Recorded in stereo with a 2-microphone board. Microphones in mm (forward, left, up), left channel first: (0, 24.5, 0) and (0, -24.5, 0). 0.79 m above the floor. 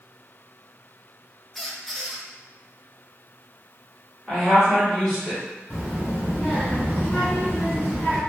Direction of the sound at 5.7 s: 35° left (ahead or behind).